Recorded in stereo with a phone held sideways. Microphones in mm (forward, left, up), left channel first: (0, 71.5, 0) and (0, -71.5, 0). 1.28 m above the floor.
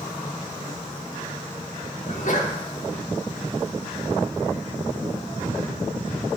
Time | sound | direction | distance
2.1 | a sneeze | 60° left (ahead or behind) | 1.7 m